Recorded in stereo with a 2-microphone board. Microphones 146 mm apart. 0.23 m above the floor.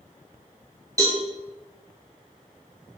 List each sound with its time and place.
1.0 s a cowbell: 25° right (ahead or behind), 1.3 m